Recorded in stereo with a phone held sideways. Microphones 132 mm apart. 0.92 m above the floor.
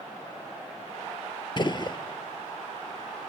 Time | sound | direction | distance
1.6 | a gunshot | 35° left (ahead or behind) | 0.6 m